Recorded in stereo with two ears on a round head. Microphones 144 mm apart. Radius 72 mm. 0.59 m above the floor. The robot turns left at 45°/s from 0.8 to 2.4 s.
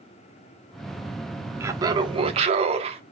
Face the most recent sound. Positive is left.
turn(degrees=-55)